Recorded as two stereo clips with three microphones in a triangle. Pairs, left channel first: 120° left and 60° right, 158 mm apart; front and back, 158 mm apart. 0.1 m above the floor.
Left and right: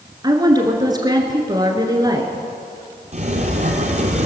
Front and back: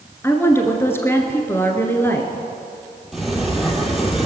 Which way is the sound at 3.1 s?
95° right.